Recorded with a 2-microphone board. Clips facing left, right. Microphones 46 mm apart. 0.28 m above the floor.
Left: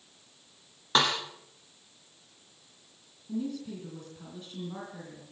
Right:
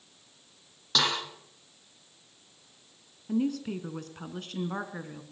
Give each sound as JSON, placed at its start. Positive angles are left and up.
{"t": 0.9, "sound": "a snare drum", "side_deg": 35, "distance_m": 6.0}
{"t": 3.3, "sound": "a woman speaking", "side_deg": -70, "distance_m": 3.5}